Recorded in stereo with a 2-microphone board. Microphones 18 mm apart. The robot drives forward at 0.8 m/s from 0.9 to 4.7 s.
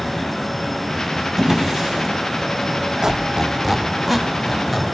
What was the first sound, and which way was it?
A drawer, 25° right (ahead or behind).